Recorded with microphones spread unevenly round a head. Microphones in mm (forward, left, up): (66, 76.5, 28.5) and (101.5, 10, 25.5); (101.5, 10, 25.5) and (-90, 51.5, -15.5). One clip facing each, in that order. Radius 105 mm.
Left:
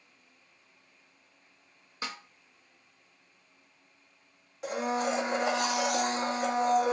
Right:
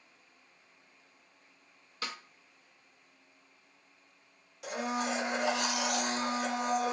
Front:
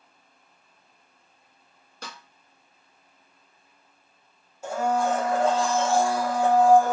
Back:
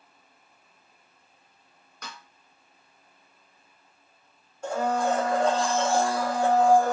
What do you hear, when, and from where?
2.0 s a snare drum: 45° left, 0.7 m
4.6 s a blender: 85° left, 1.0 m